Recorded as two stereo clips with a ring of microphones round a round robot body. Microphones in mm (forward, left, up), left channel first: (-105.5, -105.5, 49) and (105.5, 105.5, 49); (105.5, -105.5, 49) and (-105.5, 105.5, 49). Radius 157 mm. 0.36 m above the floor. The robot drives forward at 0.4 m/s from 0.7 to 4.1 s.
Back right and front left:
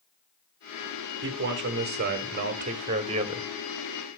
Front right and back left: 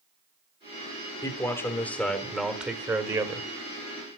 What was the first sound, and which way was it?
A man speaking, 25° left.